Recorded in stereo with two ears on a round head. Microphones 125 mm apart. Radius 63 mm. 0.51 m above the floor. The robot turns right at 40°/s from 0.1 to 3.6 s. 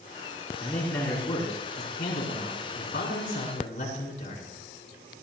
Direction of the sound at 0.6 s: 10° left.